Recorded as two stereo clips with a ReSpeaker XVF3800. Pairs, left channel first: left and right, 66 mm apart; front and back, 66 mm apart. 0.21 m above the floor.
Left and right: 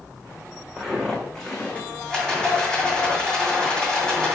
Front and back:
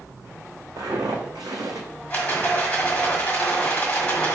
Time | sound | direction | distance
0.8 | footsteps | 175° right | 1.1 m
2.1 | a rattle | 25° left | 1.6 m